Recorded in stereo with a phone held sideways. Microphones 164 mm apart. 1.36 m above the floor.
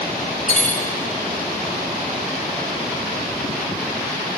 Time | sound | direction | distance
0.5 | cutlery clinking | 35° right (ahead or behind) | 3 m